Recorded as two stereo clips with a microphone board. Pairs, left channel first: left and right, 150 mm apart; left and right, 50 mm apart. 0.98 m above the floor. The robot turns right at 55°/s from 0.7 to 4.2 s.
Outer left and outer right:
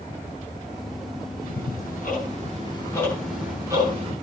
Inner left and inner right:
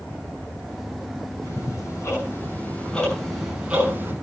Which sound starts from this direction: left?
Ticking, at 1.4 s.